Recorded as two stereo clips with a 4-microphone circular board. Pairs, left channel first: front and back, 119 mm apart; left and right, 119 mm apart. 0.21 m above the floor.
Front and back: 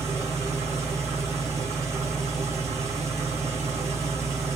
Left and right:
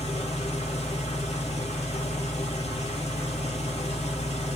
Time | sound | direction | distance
0.0 | an engine running | 115° left | 4 m